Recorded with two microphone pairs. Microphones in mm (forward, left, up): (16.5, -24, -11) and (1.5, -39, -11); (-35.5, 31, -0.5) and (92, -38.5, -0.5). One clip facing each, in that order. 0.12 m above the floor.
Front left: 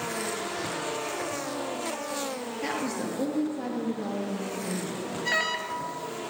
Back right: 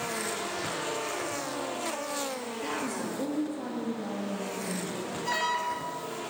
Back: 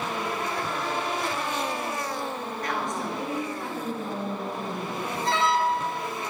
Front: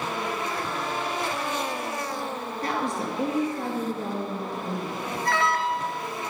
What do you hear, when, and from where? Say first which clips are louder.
2.6 s a woman speaking: front left 3 dB, front 3 dB; 15° left, 2 m
5.2 s an alarm: front left 1 dB, back 1 dB; 90° left, 1.4 m